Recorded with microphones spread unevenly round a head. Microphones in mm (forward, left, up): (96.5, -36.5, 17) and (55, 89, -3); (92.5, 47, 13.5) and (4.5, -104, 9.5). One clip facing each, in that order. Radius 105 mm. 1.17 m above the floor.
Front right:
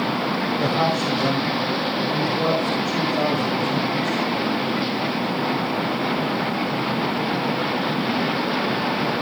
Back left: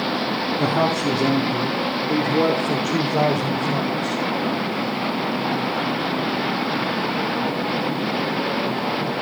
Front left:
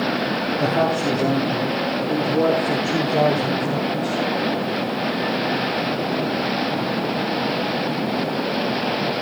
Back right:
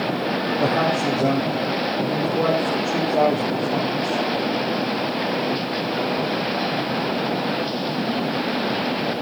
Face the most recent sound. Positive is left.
turn(degrees=130)